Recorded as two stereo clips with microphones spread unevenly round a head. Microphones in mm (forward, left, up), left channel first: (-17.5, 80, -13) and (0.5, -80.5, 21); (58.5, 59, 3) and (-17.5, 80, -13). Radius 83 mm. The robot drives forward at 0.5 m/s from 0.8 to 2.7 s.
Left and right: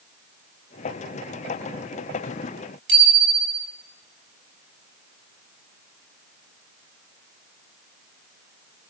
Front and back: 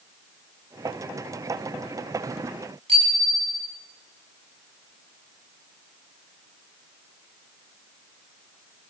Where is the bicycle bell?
100° right, 6.5 m.